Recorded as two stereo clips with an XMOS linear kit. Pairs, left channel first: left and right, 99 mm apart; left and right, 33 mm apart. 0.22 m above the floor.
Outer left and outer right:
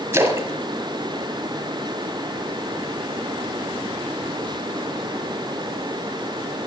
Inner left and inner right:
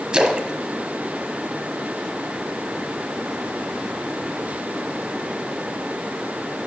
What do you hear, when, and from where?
0.1 s a splash: 25° right (ahead or behind), 1.0 m